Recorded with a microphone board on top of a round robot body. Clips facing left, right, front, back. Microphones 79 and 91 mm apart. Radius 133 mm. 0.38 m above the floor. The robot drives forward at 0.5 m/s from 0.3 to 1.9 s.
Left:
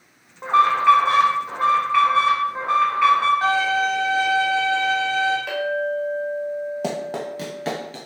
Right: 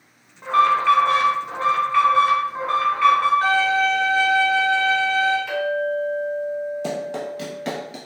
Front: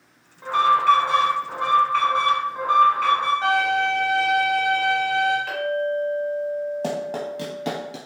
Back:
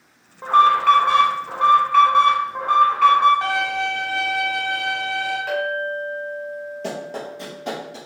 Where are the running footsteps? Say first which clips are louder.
Even, front 3 dB; 55° left, 0.7 m; by 8.0 s 15° right, 0.5 m.